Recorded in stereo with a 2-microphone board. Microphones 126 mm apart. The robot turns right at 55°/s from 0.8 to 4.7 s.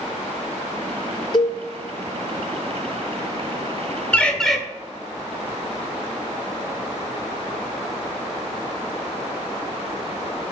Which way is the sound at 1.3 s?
35° left (ahead or behind).